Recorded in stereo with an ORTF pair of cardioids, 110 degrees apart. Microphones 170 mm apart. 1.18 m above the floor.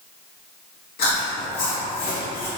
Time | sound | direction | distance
1.0 | chewing | 65° left | 1.2 m